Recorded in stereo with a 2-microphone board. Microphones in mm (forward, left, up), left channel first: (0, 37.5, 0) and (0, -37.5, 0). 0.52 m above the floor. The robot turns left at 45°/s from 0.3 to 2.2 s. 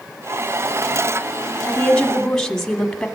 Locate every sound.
1.7 s a woman speaking: 20° left (ahead or behind), 1.4 m; by 3.1 s 5° left (ahead or behind), 1.4 m